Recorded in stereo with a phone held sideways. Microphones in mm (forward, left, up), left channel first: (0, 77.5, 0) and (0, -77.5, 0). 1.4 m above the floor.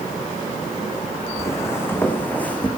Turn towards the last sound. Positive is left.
turn(degrees=10)  # may be behind; listen again after turning